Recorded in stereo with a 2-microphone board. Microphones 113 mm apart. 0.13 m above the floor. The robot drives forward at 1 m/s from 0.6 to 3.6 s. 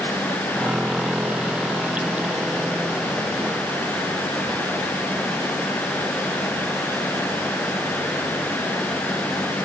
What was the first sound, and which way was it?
Only background noise.